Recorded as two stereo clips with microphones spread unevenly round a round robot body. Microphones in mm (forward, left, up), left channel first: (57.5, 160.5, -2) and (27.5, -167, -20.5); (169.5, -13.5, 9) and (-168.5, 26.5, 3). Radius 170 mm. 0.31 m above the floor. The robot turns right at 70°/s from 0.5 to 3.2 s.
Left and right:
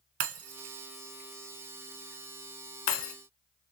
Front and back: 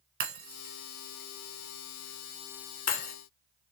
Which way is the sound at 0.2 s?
120° right.